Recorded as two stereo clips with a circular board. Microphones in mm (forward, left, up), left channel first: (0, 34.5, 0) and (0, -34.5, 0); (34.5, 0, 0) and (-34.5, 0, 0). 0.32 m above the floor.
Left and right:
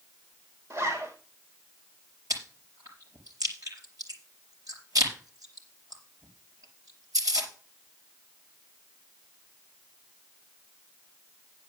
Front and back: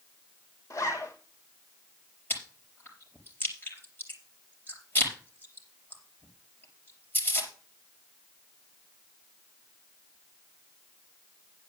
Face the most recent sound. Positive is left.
turn(degrees=-60)